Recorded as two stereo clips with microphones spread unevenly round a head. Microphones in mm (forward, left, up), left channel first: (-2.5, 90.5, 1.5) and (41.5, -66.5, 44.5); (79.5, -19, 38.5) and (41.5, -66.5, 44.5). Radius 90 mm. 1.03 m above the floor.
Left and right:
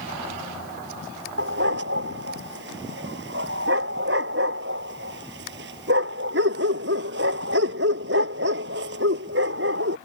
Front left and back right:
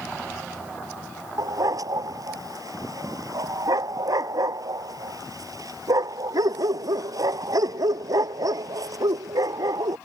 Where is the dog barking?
105° right.